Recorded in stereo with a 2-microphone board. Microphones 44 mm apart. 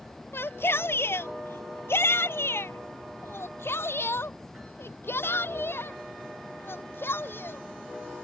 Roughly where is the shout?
Left.